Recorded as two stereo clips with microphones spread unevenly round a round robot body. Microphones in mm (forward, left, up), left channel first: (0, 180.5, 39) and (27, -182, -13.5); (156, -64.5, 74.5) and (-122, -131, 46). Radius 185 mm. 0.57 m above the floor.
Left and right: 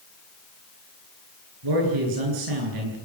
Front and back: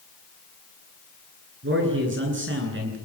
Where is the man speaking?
120° right, 9.5 m.